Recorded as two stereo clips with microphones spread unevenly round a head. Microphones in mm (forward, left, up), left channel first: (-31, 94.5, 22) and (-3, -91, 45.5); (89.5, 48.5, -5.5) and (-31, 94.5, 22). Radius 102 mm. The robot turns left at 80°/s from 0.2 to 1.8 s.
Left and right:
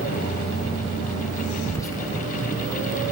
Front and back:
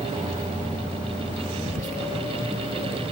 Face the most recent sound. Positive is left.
turn(degrees=175)